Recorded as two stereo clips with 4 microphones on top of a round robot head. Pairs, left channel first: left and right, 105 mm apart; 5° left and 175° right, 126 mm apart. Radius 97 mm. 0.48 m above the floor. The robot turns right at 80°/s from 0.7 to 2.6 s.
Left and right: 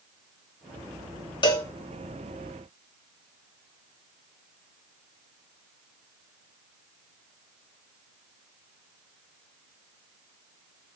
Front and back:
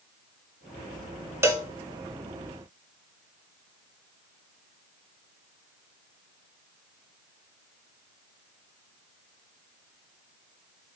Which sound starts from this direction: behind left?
A cowbell, at 1.4 s.